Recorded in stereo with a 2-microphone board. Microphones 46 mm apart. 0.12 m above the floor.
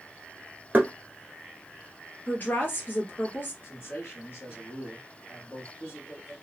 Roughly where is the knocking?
Right.